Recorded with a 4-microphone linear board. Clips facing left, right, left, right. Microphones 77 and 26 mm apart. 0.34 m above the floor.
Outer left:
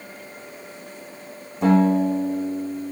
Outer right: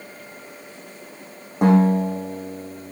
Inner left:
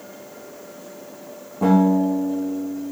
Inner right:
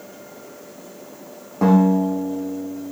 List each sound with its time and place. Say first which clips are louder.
1.6 s a guitar: outer right 1 dB, inner right 1 dB; 55° right (ahead or behind), 8 m